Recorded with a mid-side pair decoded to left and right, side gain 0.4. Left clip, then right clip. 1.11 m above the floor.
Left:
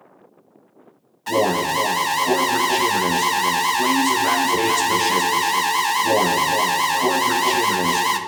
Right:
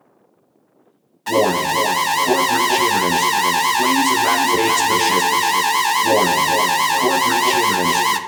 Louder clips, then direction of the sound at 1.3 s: Right 3 dB; 25° right.